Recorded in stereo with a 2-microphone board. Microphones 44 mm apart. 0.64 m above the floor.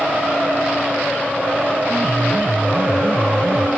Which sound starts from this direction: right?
A piano, at 1.9 s.